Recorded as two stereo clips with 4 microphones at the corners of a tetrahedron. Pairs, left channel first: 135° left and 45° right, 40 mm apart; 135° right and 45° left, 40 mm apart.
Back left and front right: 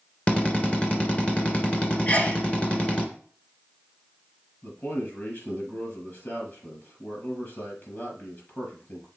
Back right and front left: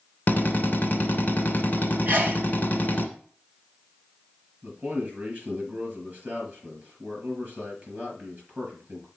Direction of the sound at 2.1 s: 90° left.